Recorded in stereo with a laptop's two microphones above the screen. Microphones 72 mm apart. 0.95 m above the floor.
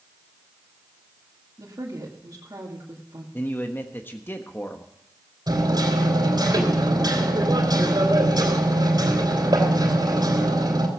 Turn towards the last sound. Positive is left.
turn(degrees=-70)  # may be behind; listen again after turning